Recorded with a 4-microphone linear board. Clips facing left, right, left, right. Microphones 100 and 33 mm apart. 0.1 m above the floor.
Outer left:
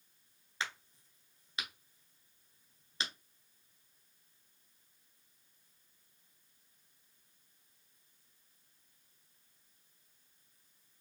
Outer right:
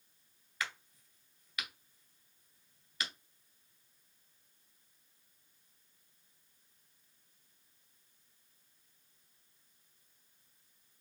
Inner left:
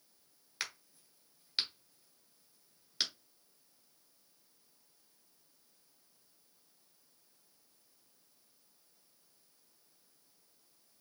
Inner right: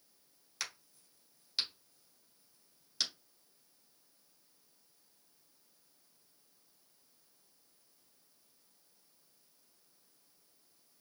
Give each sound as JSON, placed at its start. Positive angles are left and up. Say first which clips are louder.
{"t": 0.6, "sound": "a crack", "louder": "even, inner left 2 dB", "side_deg": 25, "distance_m": 1.8}